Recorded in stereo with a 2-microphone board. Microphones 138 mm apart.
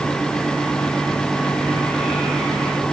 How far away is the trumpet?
I don't hear a trumpet.